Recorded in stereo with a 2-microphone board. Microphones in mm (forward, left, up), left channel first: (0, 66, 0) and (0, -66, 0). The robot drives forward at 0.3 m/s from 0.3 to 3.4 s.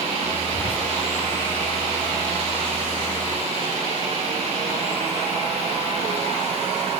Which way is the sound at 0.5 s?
5° right (ahead or behind).